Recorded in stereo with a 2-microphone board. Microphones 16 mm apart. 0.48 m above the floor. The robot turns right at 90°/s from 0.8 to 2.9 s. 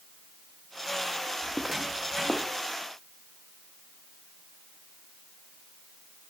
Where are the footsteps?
10° left (ahead or behind), 1.5 m; by 2.5 s 75° right (ahead or behind), 2 m.